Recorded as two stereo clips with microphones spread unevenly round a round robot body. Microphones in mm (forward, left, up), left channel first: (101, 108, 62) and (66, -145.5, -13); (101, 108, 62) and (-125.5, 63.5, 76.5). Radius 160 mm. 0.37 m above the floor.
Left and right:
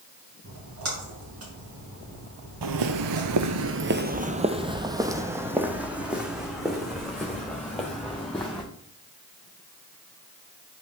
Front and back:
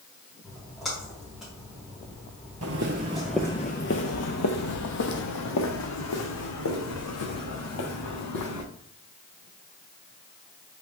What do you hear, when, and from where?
0.4 s a splash: 75° right, 4.5 m
2.6 s footsteps: 130° right, 0.6 m; by 8.6 s 5° right, 3 m